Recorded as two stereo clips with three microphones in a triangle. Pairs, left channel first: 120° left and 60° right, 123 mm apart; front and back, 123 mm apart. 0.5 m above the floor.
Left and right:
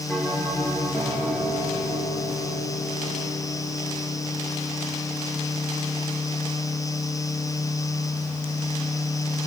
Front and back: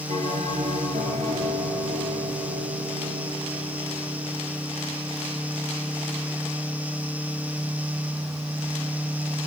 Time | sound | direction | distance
0.1 | a bell | 165° right | 5 m